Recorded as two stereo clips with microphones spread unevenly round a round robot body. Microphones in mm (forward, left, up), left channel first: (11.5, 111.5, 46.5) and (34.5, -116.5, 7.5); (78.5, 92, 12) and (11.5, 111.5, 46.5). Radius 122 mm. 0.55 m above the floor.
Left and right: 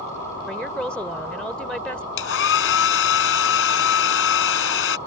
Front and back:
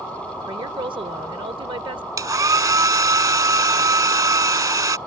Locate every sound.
0.5 s a woman speaking: 175° right
2.2 s a hair dryer: 135° left